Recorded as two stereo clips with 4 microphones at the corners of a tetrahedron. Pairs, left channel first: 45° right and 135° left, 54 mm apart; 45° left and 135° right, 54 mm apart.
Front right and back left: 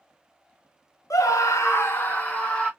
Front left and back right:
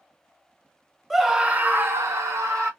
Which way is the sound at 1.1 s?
45° right.